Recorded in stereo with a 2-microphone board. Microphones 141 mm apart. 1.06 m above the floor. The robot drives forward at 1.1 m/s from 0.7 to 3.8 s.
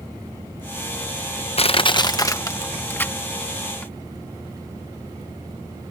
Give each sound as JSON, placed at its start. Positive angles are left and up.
{"t": 1.6, "sound": "crushing", "side_deg": 45}